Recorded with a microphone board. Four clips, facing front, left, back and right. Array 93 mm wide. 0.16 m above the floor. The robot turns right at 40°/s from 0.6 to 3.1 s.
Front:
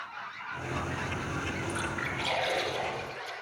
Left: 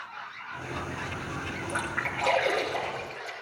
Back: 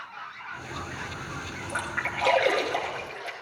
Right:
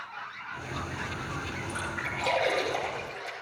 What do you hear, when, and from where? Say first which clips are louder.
1.7 s a splash: left 4 dB, back 2 dB; 145° left, 3 m; by 3.3 s 160° right, 3 m